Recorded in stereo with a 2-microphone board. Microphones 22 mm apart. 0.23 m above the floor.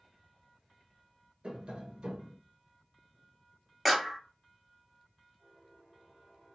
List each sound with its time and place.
1.4 s tapping: 55° right (ahead or behind), 1.1 m
3.9 s a clap: 5° right (ahead or behind), 0.7 m